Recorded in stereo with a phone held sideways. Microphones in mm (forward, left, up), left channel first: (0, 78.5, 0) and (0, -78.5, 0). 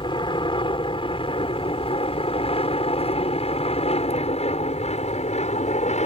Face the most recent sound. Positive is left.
turn(degrees=45)  # may be behind; listen again after turning